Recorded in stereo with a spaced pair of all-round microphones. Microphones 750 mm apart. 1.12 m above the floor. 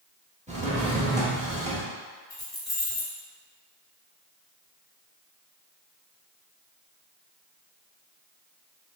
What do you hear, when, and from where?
0.5 s a drawer: 10° right (ahead or behind), 0.8 m
2.3 s keys jangling: 35° left (ahead or behind), 1.1 m